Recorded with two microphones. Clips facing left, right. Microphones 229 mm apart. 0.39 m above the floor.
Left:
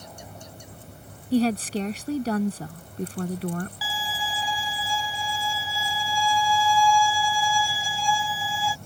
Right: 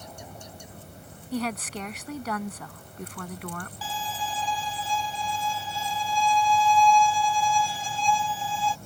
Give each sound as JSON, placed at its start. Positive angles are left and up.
{"t": 1.3, "sound": "a woman speaking", "side_deg": 30}
{"t": 3.8, "sound": "a violin", "side_deg": 10}